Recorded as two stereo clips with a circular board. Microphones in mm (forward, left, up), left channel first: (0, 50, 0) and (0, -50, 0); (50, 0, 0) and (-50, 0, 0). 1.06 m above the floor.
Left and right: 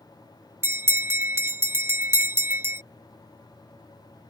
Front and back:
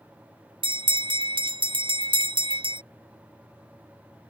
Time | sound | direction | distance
0.6 | a bell | 155° right | ?